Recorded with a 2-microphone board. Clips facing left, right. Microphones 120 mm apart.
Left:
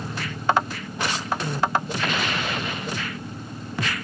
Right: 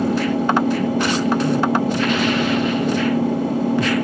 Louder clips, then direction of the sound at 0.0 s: Right 9 dB; 75° right (ahead or behind).